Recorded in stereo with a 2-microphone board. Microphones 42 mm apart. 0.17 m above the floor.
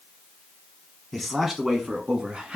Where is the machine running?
No machine running in this recording.